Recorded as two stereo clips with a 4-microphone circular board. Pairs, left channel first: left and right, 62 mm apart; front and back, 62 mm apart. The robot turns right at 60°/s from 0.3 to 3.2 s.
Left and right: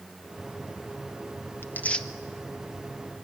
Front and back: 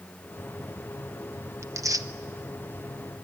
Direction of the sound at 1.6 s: 140° left.